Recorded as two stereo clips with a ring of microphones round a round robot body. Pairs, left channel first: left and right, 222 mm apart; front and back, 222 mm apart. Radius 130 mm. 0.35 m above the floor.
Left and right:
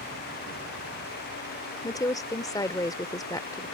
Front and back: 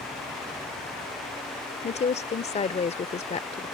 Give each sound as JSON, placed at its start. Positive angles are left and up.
{"t": 1.8, "sound": "a woman speaking", "azimuth_deg": 30}